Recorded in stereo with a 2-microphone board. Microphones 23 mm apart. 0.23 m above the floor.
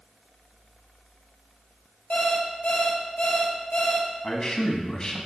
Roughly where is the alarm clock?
Left.